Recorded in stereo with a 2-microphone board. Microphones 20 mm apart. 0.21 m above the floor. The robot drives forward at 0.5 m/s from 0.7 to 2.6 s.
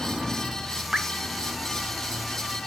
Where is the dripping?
35° right (ahead or behind), 0.6 m; by 1.1 s 30° right (ahead or behind), 0.6 m.